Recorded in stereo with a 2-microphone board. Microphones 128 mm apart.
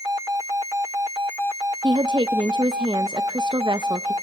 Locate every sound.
1.8 s a woman speaking: 35° right (ahead or behind), 0.6 m